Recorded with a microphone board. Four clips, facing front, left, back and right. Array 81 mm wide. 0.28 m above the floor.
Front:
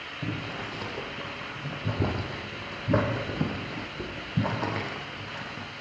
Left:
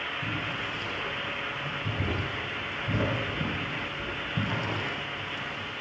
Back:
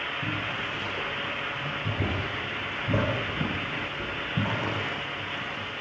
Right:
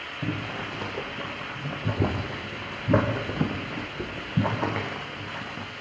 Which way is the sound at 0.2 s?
70° right.